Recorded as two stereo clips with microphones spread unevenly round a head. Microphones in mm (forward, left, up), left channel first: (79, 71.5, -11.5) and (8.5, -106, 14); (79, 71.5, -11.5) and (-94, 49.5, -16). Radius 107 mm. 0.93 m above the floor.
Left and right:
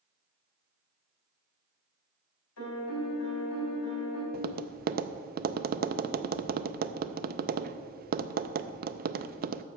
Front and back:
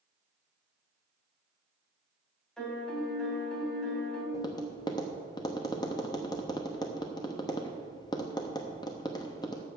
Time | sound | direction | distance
2.6 | a piano | 95° left | 2.5 m
4.3 | tapping | 65° right | 0.5 m